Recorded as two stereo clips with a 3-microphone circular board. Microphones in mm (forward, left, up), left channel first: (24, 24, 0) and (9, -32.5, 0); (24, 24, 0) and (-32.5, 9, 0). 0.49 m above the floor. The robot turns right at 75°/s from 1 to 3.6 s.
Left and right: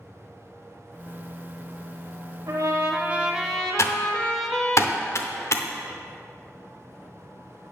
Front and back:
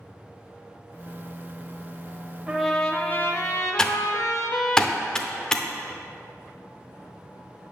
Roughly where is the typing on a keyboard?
Left.